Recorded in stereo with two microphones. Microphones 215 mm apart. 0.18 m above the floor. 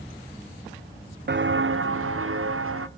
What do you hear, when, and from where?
1.3 s footsteps: 55° right (ahead or behind), 0.7 m; by 2.9 s 80° right, 1.6 m